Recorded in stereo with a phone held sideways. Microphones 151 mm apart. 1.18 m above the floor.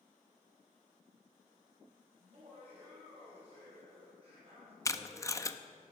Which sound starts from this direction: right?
Laughter, at 2.2 s.